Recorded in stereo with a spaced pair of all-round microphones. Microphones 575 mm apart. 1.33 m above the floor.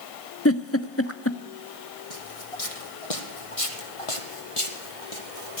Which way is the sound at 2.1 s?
70° left (ahead or behind).